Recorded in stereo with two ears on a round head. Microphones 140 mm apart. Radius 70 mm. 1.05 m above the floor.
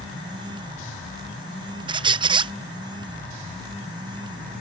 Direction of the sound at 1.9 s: 30° right (ahead or behind).